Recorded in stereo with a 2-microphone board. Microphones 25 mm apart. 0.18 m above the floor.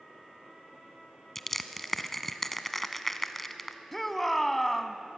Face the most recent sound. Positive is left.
turn(degrees=10)  # may be behind; listen again after turning